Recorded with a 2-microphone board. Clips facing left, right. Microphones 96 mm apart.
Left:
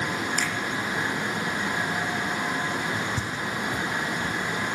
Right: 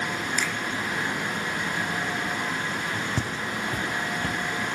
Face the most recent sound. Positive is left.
turn(degrees=-85)